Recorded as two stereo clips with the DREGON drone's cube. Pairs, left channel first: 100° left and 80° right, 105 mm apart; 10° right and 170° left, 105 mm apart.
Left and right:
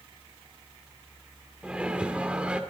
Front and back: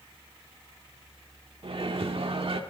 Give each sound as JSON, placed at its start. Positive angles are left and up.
{"t": 1.6, "sound": "a microwave", "azimuth_deg": -160, "distance_m": 1.6}